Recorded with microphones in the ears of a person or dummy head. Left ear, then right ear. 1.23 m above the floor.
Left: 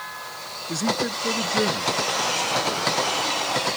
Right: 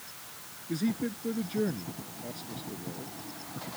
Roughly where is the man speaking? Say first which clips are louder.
Left 9 dB; left.